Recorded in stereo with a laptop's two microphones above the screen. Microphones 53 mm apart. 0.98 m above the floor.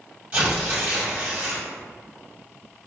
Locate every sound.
0.3 s tearing paper: 25° right (ahead or behind), 1.4 m